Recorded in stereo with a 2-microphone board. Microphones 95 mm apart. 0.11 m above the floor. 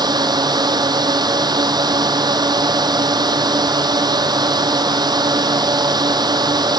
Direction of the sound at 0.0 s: 45° right (ahead or behind).